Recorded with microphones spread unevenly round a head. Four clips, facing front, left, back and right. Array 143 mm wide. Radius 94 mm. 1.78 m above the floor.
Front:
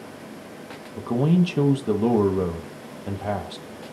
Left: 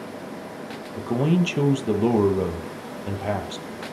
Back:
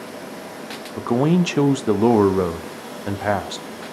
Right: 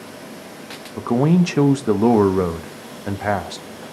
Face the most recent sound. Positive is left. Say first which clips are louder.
# right 5 dB, back 3 dB
turn(degrees=-145)